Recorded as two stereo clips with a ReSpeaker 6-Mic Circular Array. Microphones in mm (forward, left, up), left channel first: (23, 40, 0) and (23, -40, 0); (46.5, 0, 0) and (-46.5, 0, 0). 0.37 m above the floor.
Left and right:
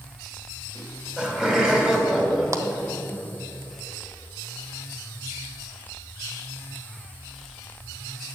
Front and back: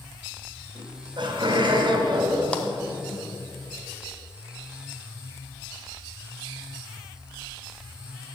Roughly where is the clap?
Right.